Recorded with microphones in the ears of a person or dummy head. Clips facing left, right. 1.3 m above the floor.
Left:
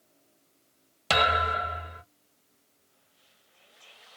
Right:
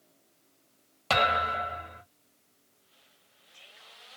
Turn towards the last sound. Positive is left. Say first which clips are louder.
# left 1 dB
turn(degrees=20)  # may be behind; listen again after turning